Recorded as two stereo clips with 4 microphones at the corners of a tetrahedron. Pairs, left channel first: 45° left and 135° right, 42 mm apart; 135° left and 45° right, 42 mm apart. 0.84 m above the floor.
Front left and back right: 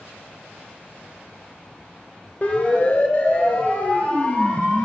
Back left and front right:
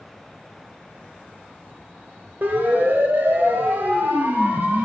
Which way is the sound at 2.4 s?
5° right.